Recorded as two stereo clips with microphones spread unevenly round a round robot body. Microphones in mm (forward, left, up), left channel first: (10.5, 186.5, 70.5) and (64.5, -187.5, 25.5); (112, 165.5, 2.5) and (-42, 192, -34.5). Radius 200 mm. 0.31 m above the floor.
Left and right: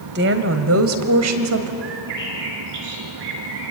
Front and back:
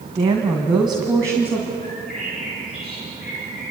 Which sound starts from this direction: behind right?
A woman speaking, at 0.1 s.